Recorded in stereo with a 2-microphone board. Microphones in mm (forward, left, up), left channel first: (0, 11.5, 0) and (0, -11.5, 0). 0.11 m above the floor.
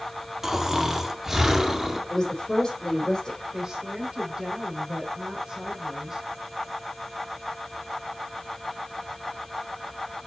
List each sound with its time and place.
0.4 s snoring: 15° right (ahead or behind), 1.9 m
2.1 s a woman speaking: 30° left (ahead or behind), 4 m
3.5 s a woman speaking: 30° right (ahead or behind), 5 m